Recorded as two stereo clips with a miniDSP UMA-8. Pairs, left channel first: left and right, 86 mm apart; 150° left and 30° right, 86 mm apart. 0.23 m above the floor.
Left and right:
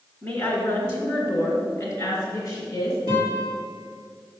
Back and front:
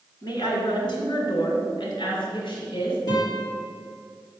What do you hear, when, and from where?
0.2 s a woman speaking: 135° left, 1.9 m; by 3.0 s 125° left, 3.5 m
3.1 s a guitar: 110° left, 4 m